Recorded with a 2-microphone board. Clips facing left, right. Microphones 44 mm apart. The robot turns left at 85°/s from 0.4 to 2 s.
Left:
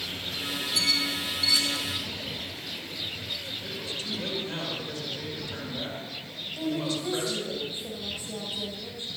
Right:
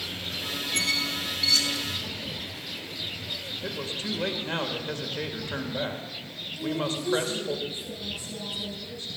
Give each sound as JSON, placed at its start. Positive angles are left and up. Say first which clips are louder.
{"t": 0.7, "sound": "a squeak", "louder": "even", "side_deg": -60, "distance_m": 2.0}
{"t": 3.6, "sound": "a man speaking", "louder": "right 2 dB", "side_deg": -45, "distance_m": 2.0}
{"t": 6.6, "sound": "a woman speaking", "louder": "even", "side_deg": 30, "distance_m": 3.5}